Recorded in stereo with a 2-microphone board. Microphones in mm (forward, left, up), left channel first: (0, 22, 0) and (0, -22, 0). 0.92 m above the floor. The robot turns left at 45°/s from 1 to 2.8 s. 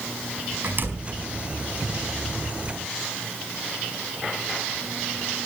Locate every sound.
0.6 s a door slam: 45° right (ahead or behind), 4.5 m; by 1.2 s 55° right (ahead or behind), 4.5 m